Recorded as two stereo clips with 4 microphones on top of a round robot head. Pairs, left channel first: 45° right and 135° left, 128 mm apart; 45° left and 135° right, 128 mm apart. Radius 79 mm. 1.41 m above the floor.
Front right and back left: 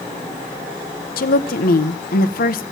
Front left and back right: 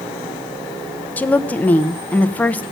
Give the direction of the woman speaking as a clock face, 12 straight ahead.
1 o'clock.